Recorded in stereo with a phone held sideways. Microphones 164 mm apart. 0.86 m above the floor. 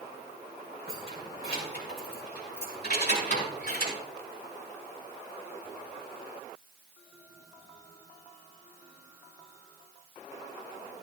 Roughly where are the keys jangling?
Left.